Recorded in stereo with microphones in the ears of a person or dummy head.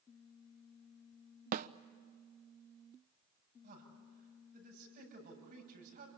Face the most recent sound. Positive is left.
turn(degrees=-55)  # may be behind; listen again after turning